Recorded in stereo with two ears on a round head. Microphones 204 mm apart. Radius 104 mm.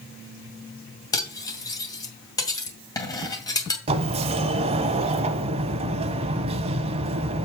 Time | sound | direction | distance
1.1 | cutlery clinking | 15° left (ahead or behind) | 2 m
3.9 | a sliding door | 25° right (ahead or behind) | 0.7 m